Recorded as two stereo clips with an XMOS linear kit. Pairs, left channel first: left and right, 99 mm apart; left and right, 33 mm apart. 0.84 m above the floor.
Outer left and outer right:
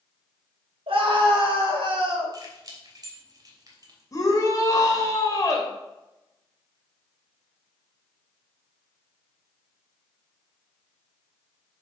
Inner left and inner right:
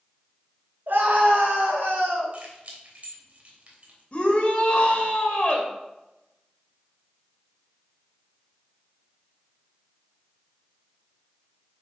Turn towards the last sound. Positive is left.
turn(degrees=35)  # may be behind; listen again after turning